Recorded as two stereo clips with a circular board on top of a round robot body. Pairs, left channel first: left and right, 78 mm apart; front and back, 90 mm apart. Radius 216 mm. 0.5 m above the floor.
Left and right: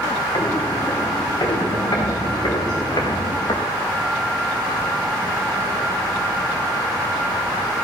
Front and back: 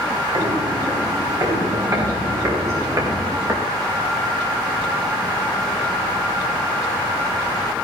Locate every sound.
0.3 s footsteps: 140° left, 4.5 m; by 3.7 s 120° left, 3 m